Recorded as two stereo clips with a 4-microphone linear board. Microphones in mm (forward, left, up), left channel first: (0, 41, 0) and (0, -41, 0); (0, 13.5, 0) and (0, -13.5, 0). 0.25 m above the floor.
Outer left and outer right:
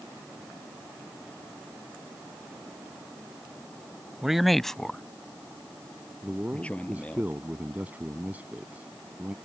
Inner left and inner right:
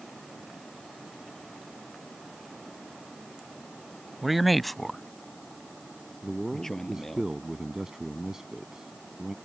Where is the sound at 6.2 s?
20° right (ahead or behind).